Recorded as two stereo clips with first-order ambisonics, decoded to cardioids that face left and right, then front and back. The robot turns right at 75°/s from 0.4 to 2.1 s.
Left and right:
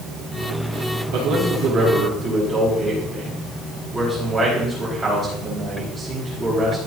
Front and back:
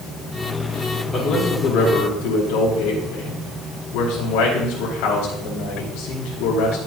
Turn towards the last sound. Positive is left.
turn(degrees=-15)